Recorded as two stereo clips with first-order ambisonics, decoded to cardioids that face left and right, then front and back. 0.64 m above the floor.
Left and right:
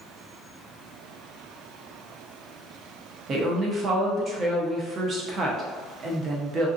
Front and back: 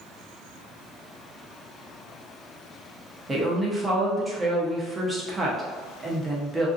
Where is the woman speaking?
110° right, 0.6 m.